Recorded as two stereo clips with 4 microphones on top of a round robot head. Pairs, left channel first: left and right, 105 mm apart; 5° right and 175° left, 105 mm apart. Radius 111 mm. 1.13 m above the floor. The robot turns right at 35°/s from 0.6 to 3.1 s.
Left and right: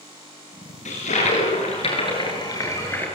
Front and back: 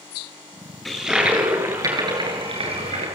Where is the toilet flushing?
85° left, 7.5 m; by 3.1 s 160° left, 7.5 m.